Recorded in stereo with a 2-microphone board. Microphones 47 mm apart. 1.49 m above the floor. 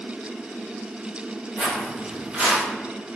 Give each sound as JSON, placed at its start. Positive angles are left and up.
{"t": 1.6, "sound": "footsteps", "side_deg": -15, "distance_m": 1.8}